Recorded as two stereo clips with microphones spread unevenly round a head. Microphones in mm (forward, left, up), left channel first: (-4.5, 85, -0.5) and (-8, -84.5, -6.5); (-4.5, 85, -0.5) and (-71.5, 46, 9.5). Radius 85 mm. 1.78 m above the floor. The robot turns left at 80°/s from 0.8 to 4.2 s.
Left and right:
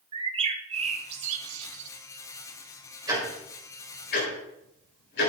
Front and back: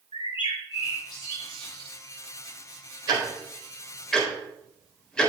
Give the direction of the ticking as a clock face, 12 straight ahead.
5 o'clock.